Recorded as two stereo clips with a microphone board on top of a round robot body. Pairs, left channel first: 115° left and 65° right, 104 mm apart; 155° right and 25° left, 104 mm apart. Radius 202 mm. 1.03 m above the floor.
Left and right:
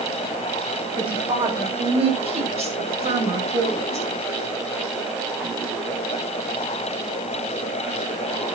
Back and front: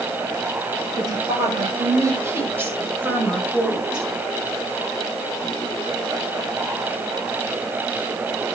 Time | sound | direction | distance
1.0 | a woman speaking | 30° right | 6 m